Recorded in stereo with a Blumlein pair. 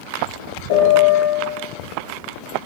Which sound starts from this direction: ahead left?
A piano, at 0.7 s.